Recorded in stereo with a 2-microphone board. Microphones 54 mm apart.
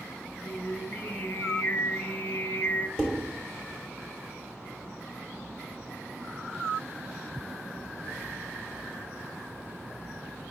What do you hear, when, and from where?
0.4 s singing: 40° left (ahead or behind), 0.6 m
3.0 s dishes clattering: 15° right (ahead or behind), 1.0 m